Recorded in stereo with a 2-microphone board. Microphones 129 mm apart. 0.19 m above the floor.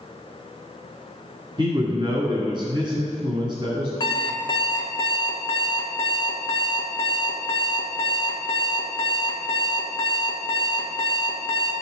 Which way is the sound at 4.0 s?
35° left (ahead or behind).